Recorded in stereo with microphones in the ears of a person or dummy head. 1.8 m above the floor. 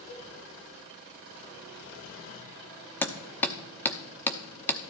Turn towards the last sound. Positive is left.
turn(degrees=15)  # may be behind; listen again after turning